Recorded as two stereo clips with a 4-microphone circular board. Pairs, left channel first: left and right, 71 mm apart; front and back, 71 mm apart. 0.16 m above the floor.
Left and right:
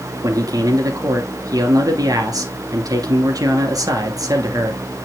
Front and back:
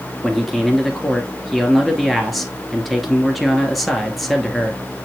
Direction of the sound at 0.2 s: 95° right.